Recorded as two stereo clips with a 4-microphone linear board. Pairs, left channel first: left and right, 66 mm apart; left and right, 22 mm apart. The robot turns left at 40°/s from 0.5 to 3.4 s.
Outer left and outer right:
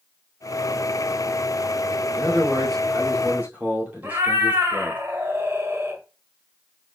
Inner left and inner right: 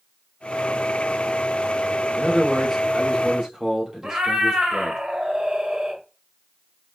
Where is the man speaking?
20° left, 2.5 m; by 5.0 s 30° right, 2.5 m.